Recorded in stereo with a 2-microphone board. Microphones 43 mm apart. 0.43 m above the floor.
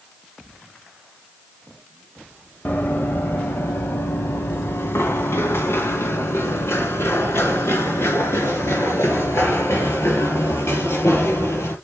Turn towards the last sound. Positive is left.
turn(degrees=85)